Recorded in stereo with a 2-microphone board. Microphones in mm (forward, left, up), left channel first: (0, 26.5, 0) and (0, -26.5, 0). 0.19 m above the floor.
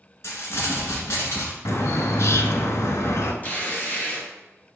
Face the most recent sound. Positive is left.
turn(degrees=35)  # may be behind; listen again after turning